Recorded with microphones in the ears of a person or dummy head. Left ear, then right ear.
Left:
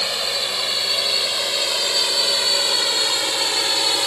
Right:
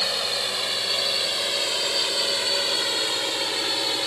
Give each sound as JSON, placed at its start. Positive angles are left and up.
{"t": 0.0, "sound": "a drone", "side_deg": 20}